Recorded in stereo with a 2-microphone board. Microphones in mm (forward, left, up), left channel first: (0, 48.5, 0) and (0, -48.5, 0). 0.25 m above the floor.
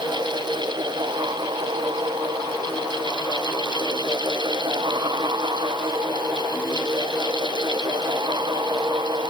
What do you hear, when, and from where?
Only background noise.